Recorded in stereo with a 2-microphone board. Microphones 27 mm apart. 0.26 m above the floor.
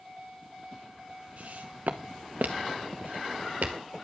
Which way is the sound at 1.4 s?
60° right (ahead or behind).